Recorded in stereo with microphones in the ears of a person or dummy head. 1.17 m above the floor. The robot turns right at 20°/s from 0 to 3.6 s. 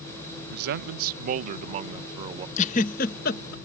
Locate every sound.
0.5 s a man speaking: 60° right; by 2.5 s 20° right
2.6 s a giggle: 40° left (ahead or behind); by 3.5 s 60° left (ahead or behind)